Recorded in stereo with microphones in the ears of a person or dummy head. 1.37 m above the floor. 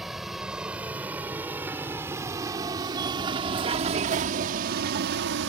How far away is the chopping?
I don't hear chopping.